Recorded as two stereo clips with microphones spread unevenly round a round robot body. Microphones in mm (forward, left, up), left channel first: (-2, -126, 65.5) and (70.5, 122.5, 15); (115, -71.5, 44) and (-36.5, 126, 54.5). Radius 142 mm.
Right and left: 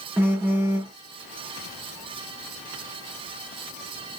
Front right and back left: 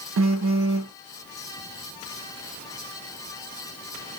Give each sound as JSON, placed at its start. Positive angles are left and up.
{"t": 0.2, "sound": "a phone buzzing", "azimuth_deg": 145, "distance_m": 1.0}